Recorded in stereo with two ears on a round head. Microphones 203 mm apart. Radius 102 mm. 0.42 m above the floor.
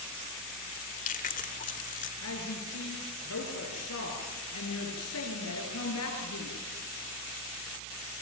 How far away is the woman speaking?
About 6.5 m.